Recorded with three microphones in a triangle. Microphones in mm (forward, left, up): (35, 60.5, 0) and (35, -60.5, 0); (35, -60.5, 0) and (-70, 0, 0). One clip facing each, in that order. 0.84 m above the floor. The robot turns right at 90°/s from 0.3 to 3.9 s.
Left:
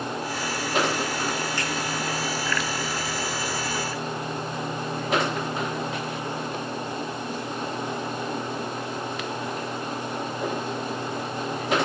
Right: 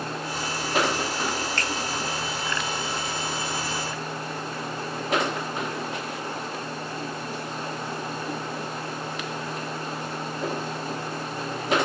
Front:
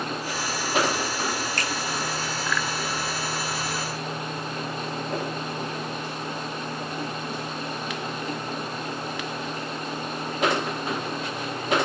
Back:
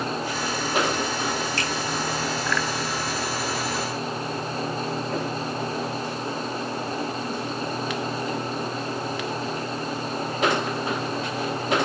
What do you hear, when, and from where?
1.6 s a finger snap: 10° left, 0.9 m; by 1.7 s 25° left, 0.9 m